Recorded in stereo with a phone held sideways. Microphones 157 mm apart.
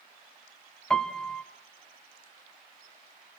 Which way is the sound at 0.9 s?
5° left (ahead or behind).